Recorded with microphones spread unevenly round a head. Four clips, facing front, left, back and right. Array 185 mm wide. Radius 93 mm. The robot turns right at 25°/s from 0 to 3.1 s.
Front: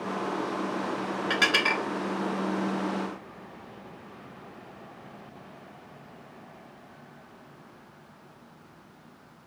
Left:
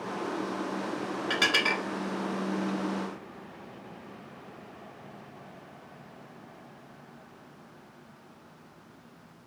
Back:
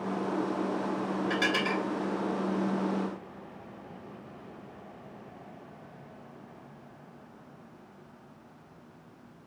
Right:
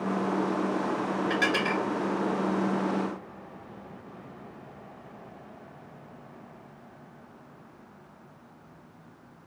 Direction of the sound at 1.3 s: 20° left.